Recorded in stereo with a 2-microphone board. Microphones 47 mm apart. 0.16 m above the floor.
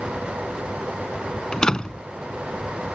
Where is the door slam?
20° left (ahead or behind).